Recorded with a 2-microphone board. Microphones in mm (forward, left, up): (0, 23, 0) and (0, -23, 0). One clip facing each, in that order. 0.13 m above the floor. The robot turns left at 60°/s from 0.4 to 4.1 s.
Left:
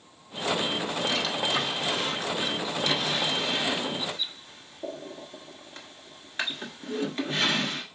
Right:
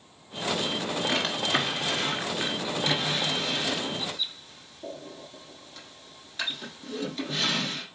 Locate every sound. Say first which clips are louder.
1.1 s a drawer: right 2 dB; 40° right (ahead or behind), 1.1 m; by 7.8 s 40° left (ahead or behind), 1.1 m